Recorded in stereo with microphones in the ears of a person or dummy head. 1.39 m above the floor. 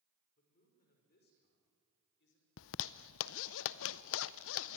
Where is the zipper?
70° left (ahead or behind), 0.6 m.